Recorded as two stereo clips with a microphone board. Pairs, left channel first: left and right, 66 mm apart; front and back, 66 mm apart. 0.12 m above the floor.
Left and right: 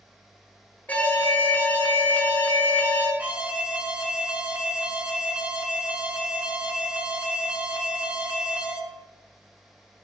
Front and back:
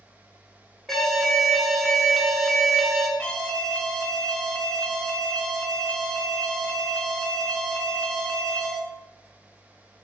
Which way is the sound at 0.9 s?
80° left.